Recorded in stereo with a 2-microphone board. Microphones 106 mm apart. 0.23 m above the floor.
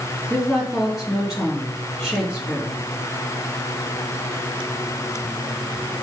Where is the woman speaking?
5° right (ahead or behind), 3 m.